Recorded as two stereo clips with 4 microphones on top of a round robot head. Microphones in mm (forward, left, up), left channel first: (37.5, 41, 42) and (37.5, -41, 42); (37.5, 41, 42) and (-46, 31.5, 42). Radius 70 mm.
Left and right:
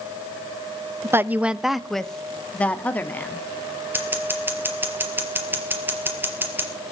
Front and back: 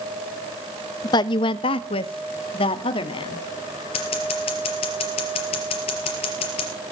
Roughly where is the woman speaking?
Ahead right.